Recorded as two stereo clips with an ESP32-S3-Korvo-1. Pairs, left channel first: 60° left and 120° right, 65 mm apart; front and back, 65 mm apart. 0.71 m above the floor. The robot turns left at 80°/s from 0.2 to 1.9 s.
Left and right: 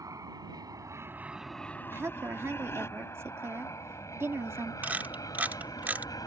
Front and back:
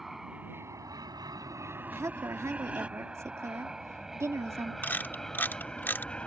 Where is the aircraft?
95° right; by 6.3 s 70° left.